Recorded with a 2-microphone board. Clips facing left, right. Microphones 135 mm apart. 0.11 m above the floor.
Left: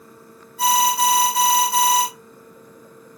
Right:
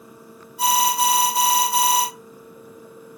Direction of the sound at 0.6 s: 15° right (ahead or behind).